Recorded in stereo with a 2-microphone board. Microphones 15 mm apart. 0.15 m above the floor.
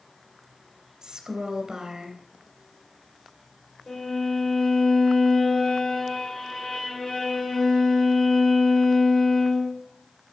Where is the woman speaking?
50° right (ahead or behind), 2.5 m.